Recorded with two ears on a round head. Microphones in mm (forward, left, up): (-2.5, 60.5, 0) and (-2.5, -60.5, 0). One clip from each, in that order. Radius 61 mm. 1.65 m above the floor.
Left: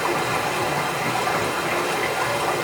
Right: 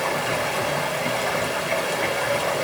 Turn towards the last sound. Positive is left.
turn(degrees=-10)  # may be behind; listen again after turning